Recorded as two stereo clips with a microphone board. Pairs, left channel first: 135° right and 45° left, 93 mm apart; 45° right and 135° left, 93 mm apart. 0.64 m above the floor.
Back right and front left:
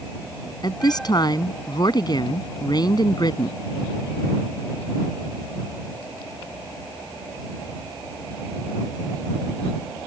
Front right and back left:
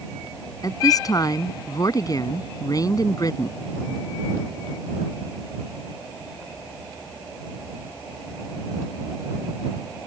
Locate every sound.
0.6 s a woman speaking: 95° right